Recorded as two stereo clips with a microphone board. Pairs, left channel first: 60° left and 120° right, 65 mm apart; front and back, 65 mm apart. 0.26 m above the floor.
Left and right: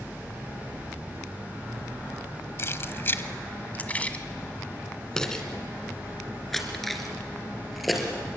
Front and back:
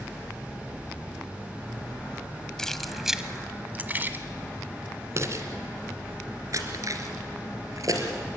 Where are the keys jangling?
75° left, 1.1 m; by 8.1 s 150° left, 4 m.